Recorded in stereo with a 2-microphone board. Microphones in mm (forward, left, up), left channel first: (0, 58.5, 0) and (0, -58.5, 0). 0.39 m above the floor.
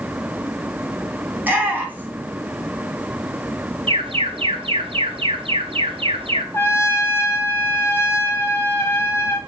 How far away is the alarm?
About 1.7 m.